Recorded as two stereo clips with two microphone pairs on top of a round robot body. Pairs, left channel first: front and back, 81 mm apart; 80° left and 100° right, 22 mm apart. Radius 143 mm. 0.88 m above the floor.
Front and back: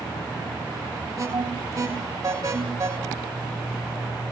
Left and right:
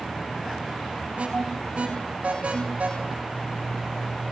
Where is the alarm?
135° right, 10 m.